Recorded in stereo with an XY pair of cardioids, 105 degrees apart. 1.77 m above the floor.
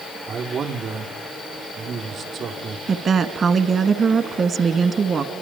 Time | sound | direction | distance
0.3 | a man speaking | 55° right | 5 m
2.9 | a woman speaking | 50° right | 2 m